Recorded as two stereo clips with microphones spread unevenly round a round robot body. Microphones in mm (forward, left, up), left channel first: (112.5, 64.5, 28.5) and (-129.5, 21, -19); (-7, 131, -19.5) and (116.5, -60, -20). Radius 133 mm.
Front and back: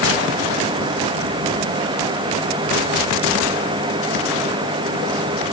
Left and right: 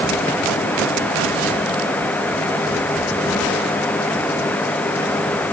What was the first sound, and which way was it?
Only background noise.